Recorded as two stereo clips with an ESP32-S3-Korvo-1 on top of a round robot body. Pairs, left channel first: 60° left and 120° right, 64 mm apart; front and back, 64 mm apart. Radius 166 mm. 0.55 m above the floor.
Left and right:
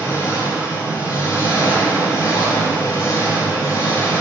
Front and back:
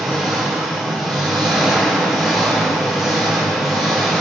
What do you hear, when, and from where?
0.0 s an engine running: 85° left, 5.5 m